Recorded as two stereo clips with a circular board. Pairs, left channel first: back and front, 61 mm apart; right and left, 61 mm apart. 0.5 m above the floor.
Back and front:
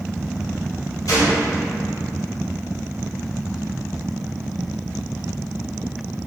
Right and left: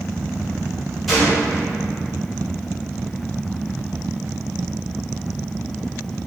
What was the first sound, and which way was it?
A gunshot, straight behind.